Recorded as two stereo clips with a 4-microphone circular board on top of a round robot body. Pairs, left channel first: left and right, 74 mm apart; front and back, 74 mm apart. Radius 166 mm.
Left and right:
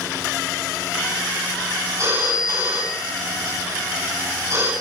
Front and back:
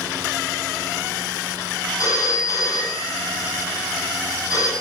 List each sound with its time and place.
2.0 s a phone ringing: 45° right, 6.5 m